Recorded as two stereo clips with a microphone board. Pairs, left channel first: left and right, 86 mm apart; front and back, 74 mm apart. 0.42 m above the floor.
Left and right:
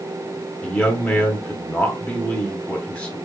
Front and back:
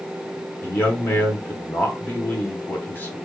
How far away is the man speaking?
About 0.9 m.